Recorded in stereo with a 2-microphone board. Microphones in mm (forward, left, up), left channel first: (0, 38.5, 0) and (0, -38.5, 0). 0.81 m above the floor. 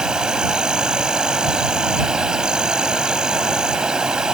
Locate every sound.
0.0 s an insect: 10° right (ahead or behind)